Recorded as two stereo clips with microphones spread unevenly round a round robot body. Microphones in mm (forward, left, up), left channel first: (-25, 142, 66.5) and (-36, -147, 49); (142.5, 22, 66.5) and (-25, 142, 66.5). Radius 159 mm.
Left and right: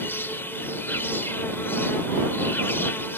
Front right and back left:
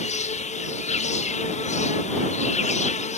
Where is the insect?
5° left.